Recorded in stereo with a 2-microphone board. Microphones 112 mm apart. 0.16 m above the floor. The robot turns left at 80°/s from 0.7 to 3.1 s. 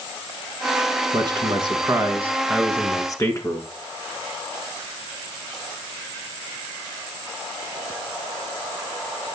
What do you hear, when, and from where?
1.1 s a man speaking: 65° right, 1.5 m; by 3.7 s 135° left, 1.5 m